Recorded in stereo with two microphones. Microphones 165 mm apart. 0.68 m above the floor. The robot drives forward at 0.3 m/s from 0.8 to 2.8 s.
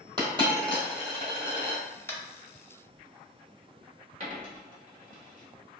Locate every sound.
0.2 s a dropped coin: 25° right (ahead or behind), 1.4 m; by 1.8 s 35° right (ahead or behind), 1.2 m
2.1 s tapping: 15° left (ahead or behind), 0.6 m
4.2 s a dropped coin: 50° right (ahead or behind), 1.2 m